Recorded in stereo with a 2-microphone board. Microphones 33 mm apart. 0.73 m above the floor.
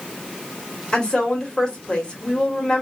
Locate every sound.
0.9 s a woman speaking: 30° left (ahead or behind), 1.3 m